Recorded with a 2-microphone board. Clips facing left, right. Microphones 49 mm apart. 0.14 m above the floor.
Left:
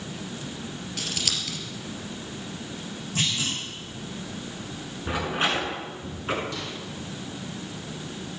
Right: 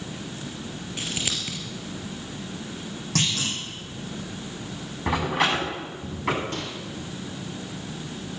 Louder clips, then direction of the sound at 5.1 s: Right 3 dB; 85° right.